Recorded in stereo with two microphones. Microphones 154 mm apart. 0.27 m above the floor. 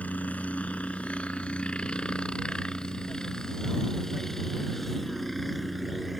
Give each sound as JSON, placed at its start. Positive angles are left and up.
{"t": 0.0, "sound": "a helicopter", "side_deg": 10}